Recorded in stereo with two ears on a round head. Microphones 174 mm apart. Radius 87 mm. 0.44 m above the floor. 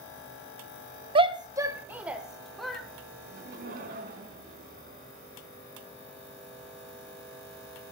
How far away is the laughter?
About 4 m.